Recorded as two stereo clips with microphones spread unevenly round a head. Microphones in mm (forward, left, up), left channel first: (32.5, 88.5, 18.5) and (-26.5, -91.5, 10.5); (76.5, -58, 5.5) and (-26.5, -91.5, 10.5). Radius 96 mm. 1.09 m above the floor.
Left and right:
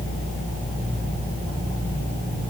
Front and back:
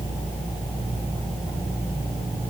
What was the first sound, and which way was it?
Only background noise.